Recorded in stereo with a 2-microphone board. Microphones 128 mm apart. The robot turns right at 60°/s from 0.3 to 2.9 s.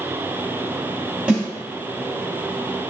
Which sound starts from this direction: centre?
A snare drum, at 1.3 s.